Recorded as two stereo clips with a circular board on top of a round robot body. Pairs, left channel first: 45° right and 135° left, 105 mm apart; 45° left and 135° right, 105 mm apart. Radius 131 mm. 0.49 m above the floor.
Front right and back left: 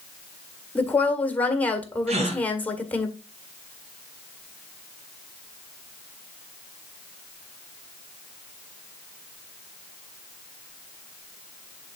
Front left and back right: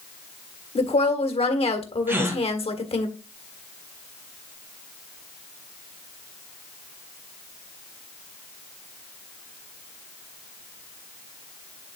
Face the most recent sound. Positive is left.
turn(degrees=155)